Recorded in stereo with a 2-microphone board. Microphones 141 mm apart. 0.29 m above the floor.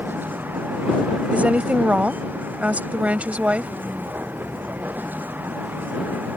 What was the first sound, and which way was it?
A vehicle, 15° right (ahead or behind).